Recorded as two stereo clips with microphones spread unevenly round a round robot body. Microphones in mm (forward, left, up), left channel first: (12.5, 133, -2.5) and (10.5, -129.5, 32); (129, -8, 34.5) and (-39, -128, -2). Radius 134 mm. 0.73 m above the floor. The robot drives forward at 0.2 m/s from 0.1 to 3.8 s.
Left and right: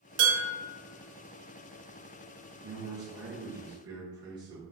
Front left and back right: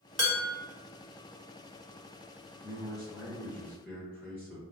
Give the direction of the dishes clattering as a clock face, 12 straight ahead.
2 o'clock.